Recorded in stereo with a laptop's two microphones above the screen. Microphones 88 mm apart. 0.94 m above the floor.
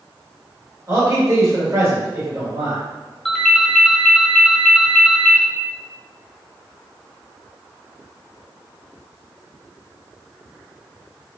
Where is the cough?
I don't hear a cough.